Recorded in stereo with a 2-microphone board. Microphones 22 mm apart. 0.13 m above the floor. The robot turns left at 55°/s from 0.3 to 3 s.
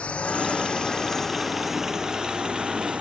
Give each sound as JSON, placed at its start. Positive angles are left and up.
{"t": 0.0, "sound": "a drone", "side_deg": 65}